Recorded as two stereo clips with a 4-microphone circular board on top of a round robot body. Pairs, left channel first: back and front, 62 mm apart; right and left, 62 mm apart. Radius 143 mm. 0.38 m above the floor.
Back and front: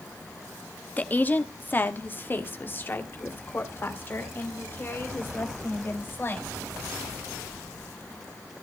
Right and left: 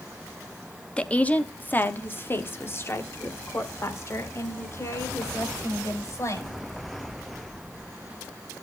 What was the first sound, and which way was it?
A woman speaking, 145° right.